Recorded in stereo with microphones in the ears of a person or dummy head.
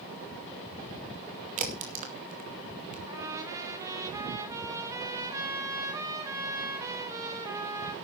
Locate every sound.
1.6 s a crack: 45° right (ahead or behind), 2.5 m
3.1 s a trumpet: 15° right (ahead or behind), 2.5 m